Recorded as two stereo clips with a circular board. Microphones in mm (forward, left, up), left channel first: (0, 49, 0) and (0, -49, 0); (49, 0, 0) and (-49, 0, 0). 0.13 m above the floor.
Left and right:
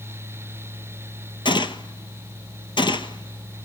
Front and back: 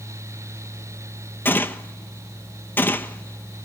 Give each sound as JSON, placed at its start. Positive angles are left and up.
{"t": 1.4, "sound": "a gunshot", "azimuth_deg": 65, "distance_m": 1.1}